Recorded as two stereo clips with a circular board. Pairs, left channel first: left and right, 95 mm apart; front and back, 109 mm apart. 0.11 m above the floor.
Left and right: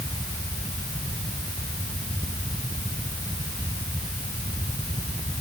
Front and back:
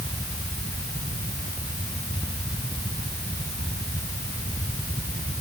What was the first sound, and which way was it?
Only background noise.